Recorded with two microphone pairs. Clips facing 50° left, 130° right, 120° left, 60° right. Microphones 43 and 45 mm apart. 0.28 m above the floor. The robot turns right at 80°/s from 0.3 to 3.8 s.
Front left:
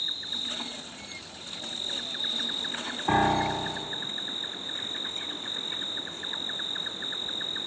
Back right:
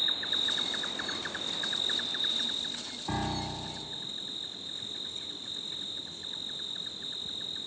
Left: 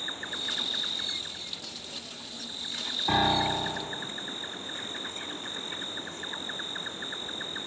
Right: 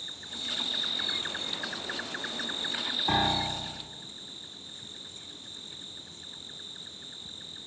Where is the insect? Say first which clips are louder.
Back right 3 dB, left 5 dB; 165° left; by 7.7 s 85° left.